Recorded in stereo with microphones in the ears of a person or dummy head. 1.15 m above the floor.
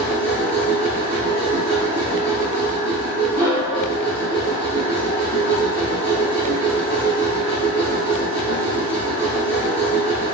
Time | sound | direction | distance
0.0 | a machine running | 35° right (ahead or behind) | 1.9 m